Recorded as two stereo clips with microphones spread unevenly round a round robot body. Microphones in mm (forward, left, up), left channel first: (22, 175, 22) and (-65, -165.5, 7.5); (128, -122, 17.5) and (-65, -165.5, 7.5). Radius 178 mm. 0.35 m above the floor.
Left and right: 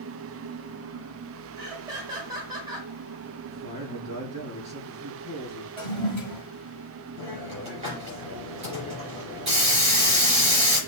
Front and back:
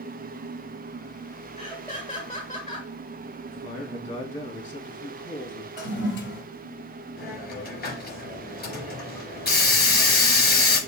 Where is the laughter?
35° right, 1.5 m.